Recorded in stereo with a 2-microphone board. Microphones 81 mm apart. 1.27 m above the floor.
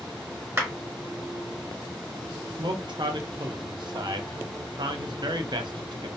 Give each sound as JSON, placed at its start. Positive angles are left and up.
{"t": 0.6, "sound": "a clap", "side_deg": -25, "distance_m": 1.1}
{"t": 2.6, "sound": "a man speaking", "side_deg": -65, "distance_m": 0.5}